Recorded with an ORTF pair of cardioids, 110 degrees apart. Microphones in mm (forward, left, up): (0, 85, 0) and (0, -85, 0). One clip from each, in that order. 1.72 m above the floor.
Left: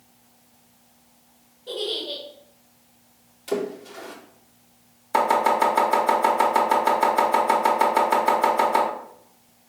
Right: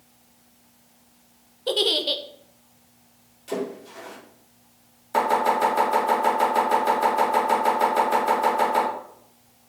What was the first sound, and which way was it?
A giggle, 65° right.